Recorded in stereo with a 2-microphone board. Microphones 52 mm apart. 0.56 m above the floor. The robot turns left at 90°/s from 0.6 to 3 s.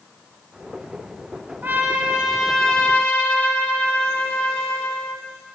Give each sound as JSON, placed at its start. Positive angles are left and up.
{"t": 1.6, "sound": "a trumpet", "azimuth_deg": -105, "distance_m": 1.1}